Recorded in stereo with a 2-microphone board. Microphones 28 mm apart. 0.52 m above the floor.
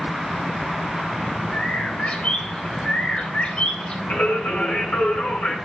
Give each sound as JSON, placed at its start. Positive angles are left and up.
{"t": 1.5, "sound": "a bird", "side_deg": 55, "distance_m": 3.0}
{"t": 4.1, "sound": "singing", "side_deg": 85, "distance_m": 4.0}